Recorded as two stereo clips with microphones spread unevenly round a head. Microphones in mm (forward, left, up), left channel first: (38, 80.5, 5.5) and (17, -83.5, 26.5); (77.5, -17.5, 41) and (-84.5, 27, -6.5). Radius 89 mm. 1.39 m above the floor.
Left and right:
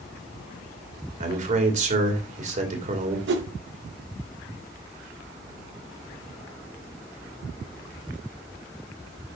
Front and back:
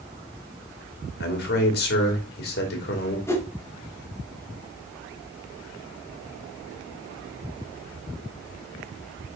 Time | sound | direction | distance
1.2 | a man speaking | 50° right | 2.5 m
3.3 | a whoosh | 90° right | 1.3 m